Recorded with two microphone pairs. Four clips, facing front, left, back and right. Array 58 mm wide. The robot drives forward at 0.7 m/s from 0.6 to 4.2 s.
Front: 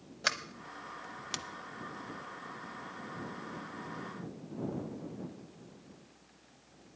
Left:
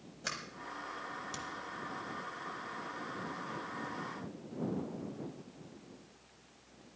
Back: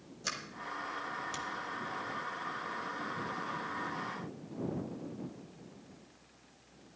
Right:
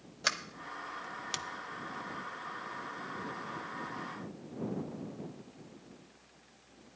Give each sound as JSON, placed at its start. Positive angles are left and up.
{"t": 0.2, "sound": "a sliding door", "azimuth_deg": -35, "distance_m": 1.0}